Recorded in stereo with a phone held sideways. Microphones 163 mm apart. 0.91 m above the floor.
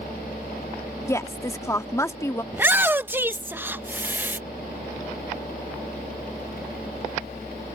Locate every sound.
0.0 s a fan: 70° left (ahead or behind)
1.1 s a woman speaking: 20° left (ahead or behind)
2.5 s a shout: 10° right (ahead or behind)